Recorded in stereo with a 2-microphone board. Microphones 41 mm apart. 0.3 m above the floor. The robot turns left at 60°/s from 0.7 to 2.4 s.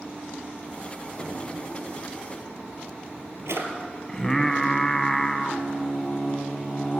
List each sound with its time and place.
1.2 s a drawer: 30° right (ahead or behind), 1.5 m; by 3.7 s 75° right (ahead or behind), 1.5 m
4.1 s singing: 15° left (ahead or behind), 0.7 m